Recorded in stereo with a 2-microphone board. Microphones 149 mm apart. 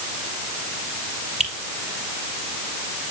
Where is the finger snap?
45° right (ahead or behind), 3 m.